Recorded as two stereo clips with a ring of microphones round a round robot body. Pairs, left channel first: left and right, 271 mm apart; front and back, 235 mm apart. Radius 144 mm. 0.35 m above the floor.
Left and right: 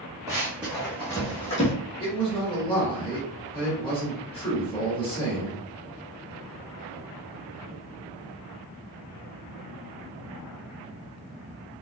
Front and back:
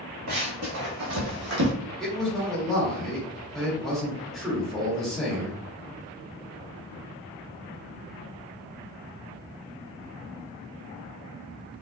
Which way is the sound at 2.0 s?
85° left.